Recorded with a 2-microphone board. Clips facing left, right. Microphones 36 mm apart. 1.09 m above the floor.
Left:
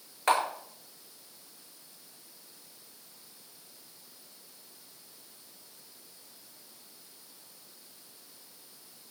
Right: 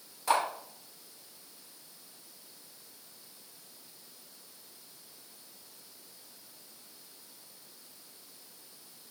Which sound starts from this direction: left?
A camera shutter, at 0.3 s.